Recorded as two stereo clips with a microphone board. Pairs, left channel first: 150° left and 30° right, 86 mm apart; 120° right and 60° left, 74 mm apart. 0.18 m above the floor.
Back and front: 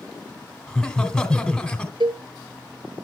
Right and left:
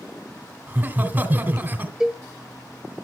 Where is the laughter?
80° left, 1.6 m.